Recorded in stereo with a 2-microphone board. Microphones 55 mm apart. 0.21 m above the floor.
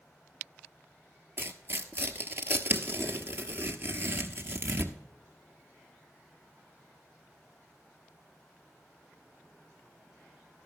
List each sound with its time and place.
1.4 s tearing paper: 45° right (ahead or behind), 1.0 m